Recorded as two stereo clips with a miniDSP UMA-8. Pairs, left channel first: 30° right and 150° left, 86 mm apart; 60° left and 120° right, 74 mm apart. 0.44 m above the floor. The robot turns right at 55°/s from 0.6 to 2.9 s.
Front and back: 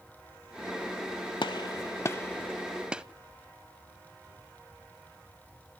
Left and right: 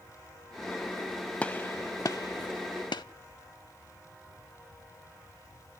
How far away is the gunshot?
About 0.6 m.